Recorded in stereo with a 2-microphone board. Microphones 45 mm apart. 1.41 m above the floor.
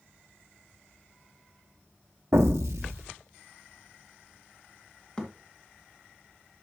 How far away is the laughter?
No laughter in this recording.